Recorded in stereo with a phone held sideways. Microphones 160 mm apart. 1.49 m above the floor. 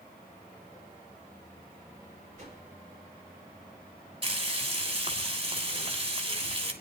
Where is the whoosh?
55° right (ahead or behind), 5.5 m.